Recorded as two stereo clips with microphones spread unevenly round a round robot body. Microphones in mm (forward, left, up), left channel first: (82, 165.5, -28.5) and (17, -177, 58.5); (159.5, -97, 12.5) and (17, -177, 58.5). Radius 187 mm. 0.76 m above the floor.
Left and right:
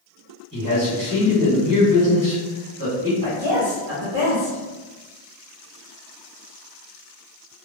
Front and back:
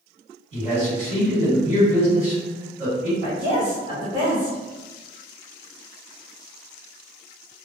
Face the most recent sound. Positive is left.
turn(degrees=-175)